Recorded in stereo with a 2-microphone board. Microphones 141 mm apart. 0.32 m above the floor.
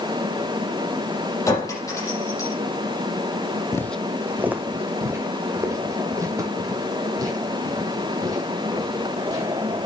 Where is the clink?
20° left (ahead or behind), 7 m.